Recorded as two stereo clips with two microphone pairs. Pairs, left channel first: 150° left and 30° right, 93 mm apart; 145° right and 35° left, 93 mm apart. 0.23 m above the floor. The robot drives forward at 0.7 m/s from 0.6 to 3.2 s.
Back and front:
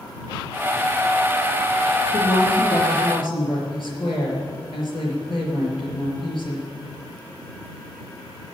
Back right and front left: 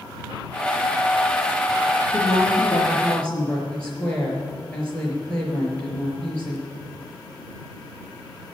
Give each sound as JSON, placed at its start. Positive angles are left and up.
{"t": 2.1, "sound": "a woman speaking", "azimuth_deg": 130, "distance_m": 4.0}